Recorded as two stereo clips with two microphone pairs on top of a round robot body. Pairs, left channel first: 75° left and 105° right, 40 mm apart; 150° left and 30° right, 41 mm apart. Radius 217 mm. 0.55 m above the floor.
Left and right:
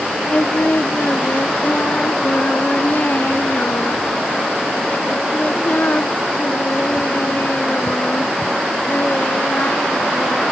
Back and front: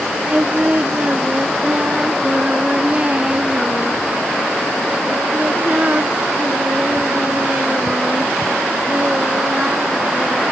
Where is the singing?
30° left.